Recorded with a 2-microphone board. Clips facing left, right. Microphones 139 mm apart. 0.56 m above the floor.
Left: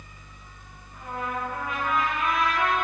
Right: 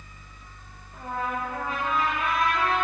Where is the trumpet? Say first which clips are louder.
Right 2 dB; 35° right (ahead or behind), 3.5 m.